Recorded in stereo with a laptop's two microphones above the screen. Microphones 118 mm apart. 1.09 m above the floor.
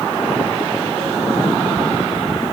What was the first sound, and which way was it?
Only background noise.